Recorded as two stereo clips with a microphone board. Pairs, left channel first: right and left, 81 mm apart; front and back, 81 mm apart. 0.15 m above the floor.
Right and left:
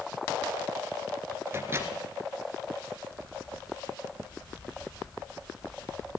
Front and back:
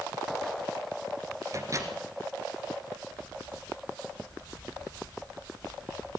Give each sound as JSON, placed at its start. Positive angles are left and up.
{"t": 1.5, "sound": "a microwave", "azimuth_deg": 140, "distance_m": 2.0}